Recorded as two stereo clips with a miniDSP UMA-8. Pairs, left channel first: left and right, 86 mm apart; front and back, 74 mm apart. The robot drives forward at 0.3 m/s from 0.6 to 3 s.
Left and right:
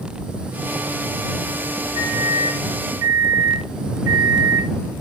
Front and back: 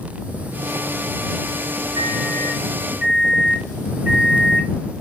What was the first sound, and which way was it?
A microwave, 115° right.